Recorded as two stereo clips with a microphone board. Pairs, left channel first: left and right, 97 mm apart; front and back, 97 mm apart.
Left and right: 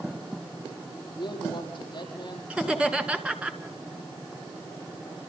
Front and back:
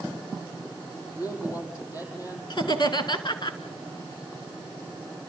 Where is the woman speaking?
50° left, 7.5 m.